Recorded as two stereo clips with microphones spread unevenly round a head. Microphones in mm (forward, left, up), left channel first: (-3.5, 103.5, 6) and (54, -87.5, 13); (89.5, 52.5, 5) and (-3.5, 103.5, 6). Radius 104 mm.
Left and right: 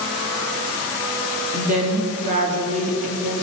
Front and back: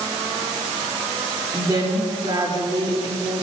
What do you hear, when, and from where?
1.5 s a woman speaking: 130° right, 2.5 m